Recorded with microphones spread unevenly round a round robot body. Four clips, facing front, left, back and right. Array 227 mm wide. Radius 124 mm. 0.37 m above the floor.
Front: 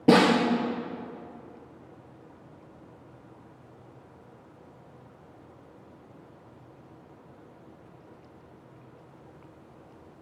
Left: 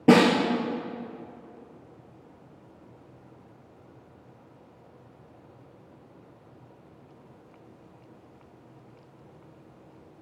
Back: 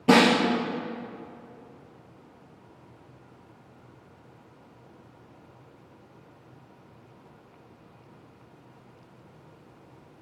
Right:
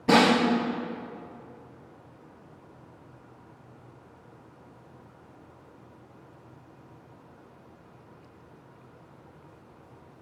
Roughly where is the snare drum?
Ahead left.